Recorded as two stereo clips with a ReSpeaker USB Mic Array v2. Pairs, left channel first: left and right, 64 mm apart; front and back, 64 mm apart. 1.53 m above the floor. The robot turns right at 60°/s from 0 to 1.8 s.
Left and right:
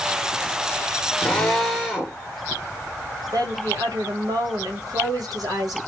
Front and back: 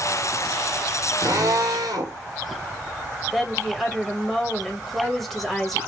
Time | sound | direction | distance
1.2 | a drill | 150° left | 1.9 m
3.3 | a woman speaking | 90° right | 1.5 m